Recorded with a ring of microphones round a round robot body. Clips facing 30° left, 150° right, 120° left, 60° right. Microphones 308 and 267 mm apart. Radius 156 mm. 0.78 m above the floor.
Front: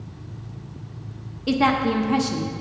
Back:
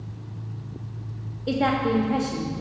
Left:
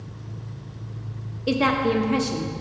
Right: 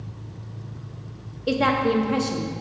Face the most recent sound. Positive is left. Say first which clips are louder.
# front 2 dB, even
turn(degrees=45)